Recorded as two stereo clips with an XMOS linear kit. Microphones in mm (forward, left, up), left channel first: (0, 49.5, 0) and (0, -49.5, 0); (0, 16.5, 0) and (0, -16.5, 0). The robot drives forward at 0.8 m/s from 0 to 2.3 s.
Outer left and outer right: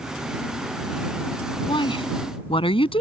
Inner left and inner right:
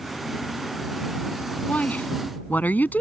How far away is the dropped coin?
No dropped coin in this recording.